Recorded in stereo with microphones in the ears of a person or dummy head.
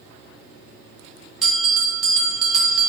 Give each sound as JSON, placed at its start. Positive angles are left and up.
{"t": 1.4, "sound": "a bell", "side_deg": 0, "distance_m": 0.6}